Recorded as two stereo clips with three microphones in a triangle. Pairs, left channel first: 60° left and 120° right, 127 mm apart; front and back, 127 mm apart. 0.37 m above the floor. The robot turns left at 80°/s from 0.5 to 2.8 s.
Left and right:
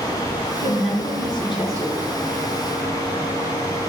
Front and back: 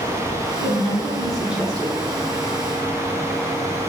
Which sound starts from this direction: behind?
A woman speaking, at 0.6 s.